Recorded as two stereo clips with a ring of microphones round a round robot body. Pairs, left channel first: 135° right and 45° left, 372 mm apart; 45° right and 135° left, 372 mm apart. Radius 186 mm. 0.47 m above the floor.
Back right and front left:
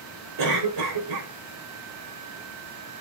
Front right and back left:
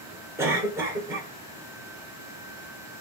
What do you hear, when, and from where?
0.4 s a cough: 55° left, 1.8 m